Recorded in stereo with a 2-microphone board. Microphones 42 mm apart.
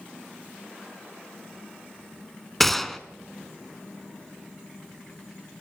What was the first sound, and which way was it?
A gunshot, 5° left (ahead or behind).